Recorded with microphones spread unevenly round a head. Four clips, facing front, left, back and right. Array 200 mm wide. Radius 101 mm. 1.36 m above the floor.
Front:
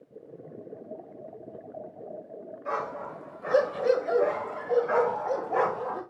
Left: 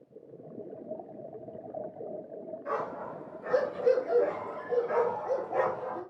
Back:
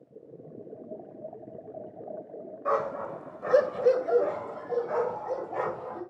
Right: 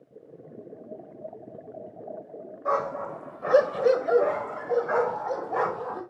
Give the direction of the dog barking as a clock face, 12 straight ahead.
4 o'clock.